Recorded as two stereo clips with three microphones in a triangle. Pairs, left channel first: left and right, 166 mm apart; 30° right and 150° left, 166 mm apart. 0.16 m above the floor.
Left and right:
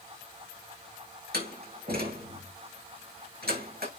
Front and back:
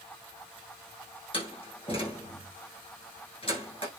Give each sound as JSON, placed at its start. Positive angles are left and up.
{"t": 1.3, "sound": "a door slam", "azimuth_deg": -85, "distance_m": 6.5}